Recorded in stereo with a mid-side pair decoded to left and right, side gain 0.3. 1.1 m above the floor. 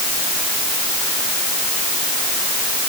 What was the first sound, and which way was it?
Only background noise.